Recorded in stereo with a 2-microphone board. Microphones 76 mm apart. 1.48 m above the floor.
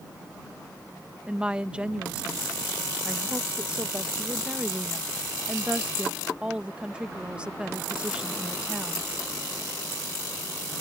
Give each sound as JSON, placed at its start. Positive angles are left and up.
{"t": 1.3, "sound": "a woman speaking", "side_deg": -15}